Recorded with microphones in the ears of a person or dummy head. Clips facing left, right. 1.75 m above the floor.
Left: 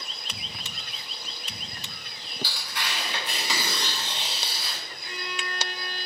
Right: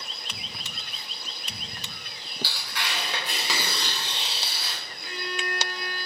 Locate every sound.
2.4 s tearing paper: 55° right (ahead or behind), 3.5 m
5.0 s a violin: 45° right (ahead or behind), 2 m